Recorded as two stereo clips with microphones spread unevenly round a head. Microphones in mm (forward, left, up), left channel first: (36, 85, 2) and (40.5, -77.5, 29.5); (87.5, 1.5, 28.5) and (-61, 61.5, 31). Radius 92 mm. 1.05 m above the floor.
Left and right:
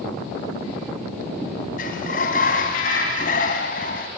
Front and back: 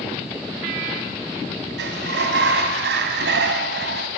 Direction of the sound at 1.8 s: 145° left.